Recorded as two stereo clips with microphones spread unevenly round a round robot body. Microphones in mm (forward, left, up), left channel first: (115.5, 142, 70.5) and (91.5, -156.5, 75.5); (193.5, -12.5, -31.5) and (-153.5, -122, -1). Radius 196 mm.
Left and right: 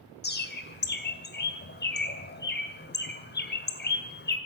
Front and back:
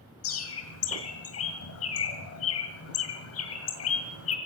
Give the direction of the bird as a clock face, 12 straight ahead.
10 o'clock.